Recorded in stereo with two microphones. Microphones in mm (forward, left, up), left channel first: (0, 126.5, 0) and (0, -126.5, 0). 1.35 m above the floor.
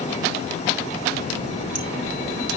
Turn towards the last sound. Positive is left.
turn(degrees=-65)  # may be behind; listen again after turning